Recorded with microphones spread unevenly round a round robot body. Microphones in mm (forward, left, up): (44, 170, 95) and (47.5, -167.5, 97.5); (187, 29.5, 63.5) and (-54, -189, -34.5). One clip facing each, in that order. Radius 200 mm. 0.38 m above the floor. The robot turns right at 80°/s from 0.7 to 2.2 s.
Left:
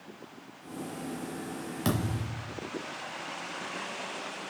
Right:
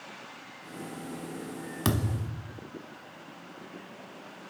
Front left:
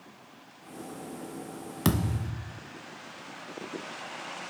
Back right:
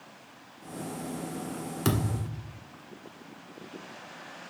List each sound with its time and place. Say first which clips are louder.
1.9 s a thud: right 1 dB, front left 1 dB; 20° right, 1.3 m; by 2.6 s 10° left, 1.3 m